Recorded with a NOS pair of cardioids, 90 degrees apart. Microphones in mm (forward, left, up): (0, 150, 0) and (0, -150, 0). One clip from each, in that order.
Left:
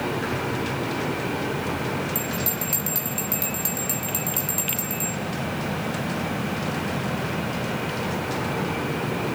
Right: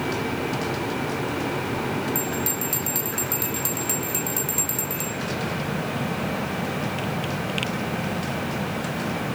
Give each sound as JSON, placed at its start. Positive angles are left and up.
{"t": 2.1, "sound": "a bell", "azimuth_deg": 0, "distance_m": 2.5}